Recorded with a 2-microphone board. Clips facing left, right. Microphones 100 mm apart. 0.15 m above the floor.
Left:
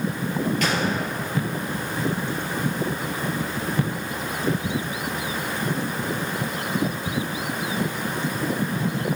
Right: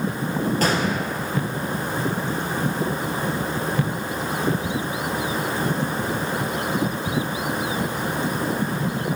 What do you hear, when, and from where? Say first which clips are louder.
0.6 s a gunshot: right 2 dB; 35° right (ahead or behind), 2.5 m